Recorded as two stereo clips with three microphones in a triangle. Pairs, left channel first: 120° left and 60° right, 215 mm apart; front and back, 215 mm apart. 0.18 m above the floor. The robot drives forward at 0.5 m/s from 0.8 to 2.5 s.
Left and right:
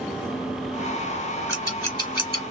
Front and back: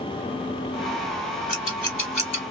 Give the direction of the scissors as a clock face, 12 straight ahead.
10 o'clock.